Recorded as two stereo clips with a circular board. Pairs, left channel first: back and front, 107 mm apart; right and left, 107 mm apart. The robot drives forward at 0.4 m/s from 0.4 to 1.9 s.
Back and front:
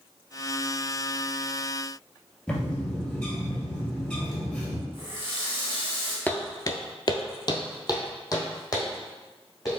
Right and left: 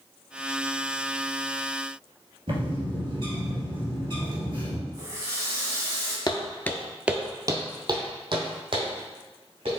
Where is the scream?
No scream in this recording.